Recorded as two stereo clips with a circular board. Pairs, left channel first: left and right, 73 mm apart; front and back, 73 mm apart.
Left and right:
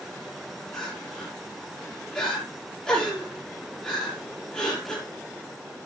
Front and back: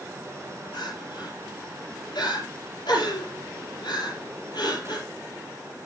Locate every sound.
0.7 s crying: 15° left, 6 m